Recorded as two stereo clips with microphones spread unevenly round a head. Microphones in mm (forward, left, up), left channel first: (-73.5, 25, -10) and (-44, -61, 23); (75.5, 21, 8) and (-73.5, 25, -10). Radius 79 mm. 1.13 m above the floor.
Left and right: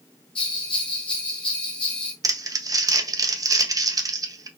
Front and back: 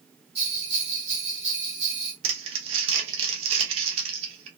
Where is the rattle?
I don't hear a rattle.